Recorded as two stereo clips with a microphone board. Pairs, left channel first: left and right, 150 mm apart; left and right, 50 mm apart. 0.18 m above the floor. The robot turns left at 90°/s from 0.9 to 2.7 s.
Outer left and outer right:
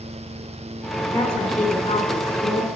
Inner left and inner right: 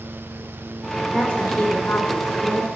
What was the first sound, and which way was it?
A woman speaking, 160° left.